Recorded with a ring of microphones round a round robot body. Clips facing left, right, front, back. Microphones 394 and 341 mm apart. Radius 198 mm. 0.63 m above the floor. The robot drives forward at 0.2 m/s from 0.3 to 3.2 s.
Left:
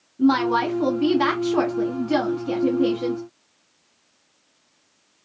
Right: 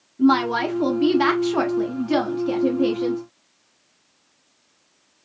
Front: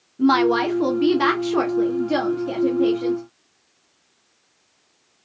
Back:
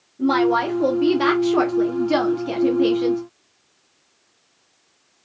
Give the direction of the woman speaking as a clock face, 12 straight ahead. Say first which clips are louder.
Right 1 dB, front 1 dB; 12 o'clock.